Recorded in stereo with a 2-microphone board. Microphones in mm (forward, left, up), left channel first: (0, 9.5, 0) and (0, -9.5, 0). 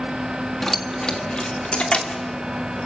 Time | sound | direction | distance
0.6 | keys jangling | 15° left (ahead or behind) | 1.7 m